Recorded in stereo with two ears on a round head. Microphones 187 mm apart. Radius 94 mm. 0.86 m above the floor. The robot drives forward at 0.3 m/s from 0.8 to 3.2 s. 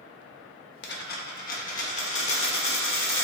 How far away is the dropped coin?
About 0.6 m.